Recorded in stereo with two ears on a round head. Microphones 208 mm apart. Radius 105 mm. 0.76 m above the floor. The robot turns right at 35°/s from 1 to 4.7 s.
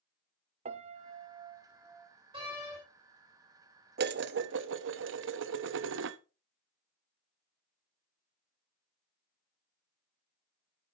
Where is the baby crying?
I don't hear a baby crying.